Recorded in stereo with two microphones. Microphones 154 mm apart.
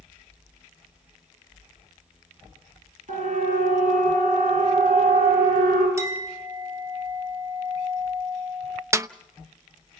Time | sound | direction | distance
3.1 | a siren | 55° right (ahead or behind) | 8 m
6.0 | a clink | 20° right (ahead or behind) | 3 m
8.9 | a snare drum | 20° right (ahead or behind) | 0.5 m